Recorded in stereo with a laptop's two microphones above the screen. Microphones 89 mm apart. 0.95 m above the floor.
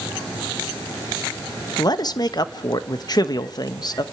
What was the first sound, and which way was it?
A man speaking, 45° left (ahead or behind).